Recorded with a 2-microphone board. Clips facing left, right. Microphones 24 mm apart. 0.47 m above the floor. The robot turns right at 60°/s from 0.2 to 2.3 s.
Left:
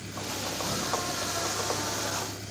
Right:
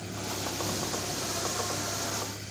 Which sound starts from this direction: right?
A vehicle, at 0.0 s.